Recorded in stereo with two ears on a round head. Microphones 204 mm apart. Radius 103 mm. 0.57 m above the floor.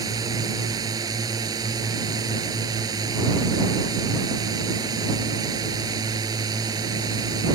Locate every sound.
0.0 s a drone: 15° right (ahead or behind)